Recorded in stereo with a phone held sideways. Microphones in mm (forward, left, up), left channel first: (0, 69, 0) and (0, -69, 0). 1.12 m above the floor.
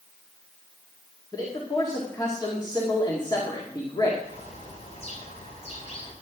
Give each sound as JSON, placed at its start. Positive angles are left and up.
{"t": 1.3, "sound": "a man speaking", "side_deg": 35, "distance_m": 2.0}
{"t": 4.2, "sound": "a bird", "side_deg": 55, "distance_m": 4.0}